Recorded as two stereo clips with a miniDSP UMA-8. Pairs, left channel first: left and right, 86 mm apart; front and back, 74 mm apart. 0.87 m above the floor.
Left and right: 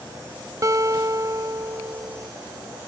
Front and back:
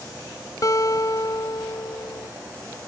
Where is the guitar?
40° right.